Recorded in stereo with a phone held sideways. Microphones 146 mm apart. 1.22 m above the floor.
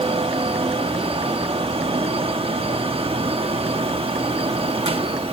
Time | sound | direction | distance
0.0 | a fan | 40° right (ahead or behind) | 1.1 m